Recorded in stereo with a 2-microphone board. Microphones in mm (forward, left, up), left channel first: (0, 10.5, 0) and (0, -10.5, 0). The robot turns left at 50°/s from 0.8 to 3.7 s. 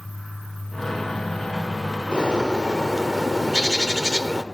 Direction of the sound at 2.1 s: 60° left.